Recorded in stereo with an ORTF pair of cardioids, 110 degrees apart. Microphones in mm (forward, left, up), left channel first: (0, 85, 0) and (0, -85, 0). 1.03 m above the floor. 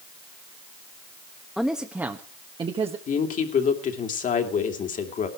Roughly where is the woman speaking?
Ahead left.